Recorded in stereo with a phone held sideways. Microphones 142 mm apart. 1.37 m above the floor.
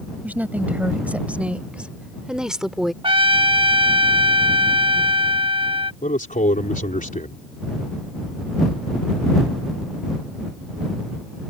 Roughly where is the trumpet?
Right.